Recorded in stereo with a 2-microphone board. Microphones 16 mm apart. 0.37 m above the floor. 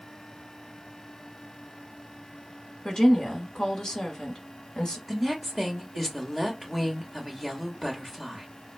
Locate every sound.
2.9 s a woman speaking: 40° left (ahead or behind), 1.2 m
5.1 s a woman speaking: centre (ahead or behind), 1.2 m